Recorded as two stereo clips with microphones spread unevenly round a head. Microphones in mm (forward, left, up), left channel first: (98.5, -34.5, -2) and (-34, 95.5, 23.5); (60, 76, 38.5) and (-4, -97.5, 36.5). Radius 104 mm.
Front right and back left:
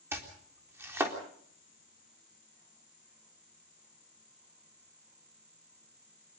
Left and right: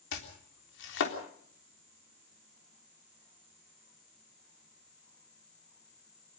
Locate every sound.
0.1 s chopping: 55° left, 3.5 m